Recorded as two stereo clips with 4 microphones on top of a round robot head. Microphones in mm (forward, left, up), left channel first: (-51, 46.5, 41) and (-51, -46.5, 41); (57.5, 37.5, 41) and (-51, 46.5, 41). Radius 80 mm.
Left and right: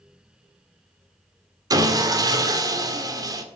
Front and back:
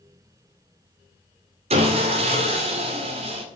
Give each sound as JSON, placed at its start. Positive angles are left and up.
{"t": 1.7, "sound": "sawing", "azimuth_deg": -140, "distance_m": 2.5}